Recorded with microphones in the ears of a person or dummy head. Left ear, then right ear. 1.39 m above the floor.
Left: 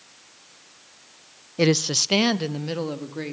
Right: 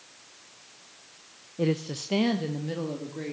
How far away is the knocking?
No knocking in this recording.